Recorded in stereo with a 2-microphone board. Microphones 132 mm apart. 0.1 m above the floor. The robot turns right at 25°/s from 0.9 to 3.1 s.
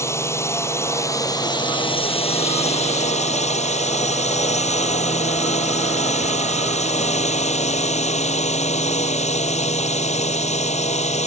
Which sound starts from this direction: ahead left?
A drone, at 0.0 s.